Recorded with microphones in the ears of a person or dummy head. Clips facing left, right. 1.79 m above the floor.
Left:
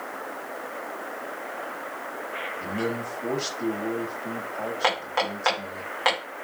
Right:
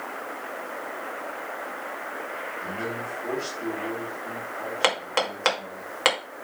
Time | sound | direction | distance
2.6 | a man speaking | 60° left (ahead or behind) | 4 m
4.8 | hammering | 50° right (ahead or behind) | 2.5 m